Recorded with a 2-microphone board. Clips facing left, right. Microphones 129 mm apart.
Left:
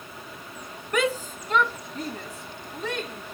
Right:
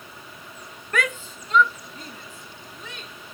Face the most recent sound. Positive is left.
turn(degrees=75)  # may be behind; listen again after turning